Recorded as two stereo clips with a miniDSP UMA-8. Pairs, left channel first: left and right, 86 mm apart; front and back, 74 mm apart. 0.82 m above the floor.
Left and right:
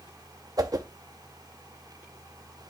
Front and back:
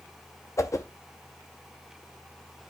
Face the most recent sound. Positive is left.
turn(degrees=-50)